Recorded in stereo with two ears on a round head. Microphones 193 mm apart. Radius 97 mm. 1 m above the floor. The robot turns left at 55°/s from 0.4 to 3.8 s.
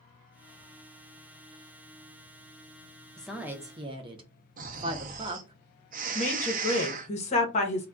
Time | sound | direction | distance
3.2 | a woman speaking | 5° left (ahead or behind) | 0.7 m
4.6 | snoring | 40° right (ahead or behind) | 0.5 m
6.2 | a woman speaking | 35° left (ahead or behind) | 0.9 m